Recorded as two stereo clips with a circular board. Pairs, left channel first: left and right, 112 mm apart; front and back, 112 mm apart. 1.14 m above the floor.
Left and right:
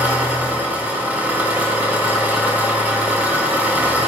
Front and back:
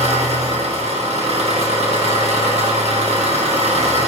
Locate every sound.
0.0 s an engine running: 165° right, 0.9 m